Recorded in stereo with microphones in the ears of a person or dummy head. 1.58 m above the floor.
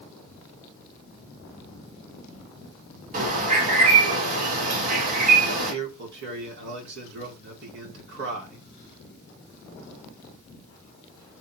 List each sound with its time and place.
3.1 s a bird: 45° right (ahead or behind), 3 m
5.7 s a man speaking: 65° right (ahead or behind), 3.5 m